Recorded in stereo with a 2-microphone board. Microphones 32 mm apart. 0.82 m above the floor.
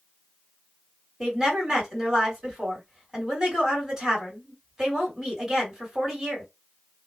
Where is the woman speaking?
15° right (ahead or behind), 2 m.